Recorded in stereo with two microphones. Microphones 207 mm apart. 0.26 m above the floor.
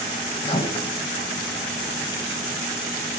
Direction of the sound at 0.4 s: 25° left (ahead or behind).